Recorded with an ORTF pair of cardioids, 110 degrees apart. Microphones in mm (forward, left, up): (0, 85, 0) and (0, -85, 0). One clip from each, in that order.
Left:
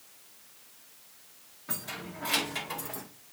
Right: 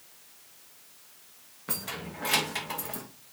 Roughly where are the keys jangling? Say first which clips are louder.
Right 2 dB; ahead right.